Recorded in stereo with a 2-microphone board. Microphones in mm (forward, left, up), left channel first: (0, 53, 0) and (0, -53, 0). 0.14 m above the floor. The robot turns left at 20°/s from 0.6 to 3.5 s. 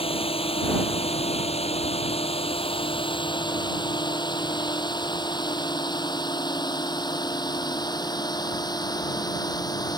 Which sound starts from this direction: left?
A drone, at 0.0 s.